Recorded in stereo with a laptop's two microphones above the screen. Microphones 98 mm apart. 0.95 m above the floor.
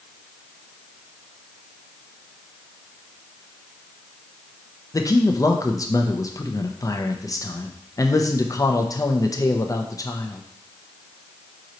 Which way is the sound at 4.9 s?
35° left (ahead or behind).